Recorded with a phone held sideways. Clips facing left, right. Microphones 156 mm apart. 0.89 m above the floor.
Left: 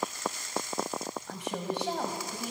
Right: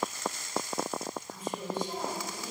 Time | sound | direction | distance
1.3 | a woman speaking | 75° left (ahead or behind) | 5.5 m